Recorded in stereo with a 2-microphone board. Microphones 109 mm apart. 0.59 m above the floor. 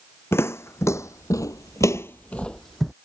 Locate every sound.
0.3 s footsteps: 25° left (ahead or behind); by 2.9 s centre (ahead or behind)